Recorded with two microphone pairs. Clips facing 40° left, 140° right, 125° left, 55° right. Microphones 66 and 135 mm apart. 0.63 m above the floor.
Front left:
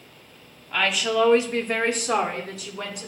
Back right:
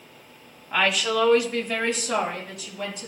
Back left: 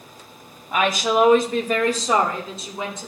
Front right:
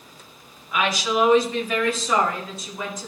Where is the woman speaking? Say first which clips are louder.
Even, back left 3 dB; 145° left, 1.0 m; by 3.1 s 60° left, 2.5 m.